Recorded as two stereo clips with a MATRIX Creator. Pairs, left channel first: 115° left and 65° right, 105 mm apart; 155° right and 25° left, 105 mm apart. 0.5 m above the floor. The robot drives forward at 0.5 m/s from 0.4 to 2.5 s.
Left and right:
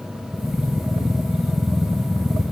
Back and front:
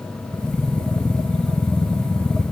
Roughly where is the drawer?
I don't hear a drawer.